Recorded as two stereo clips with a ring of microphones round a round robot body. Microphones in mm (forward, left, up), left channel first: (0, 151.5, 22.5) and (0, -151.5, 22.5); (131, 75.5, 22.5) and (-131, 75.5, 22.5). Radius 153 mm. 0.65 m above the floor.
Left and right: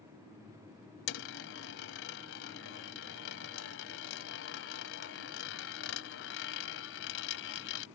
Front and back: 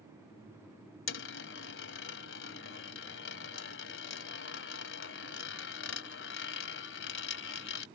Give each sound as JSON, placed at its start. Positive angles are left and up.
{"t": 1.1, "sound": "a dropped coin", "azimuth_deg": 40}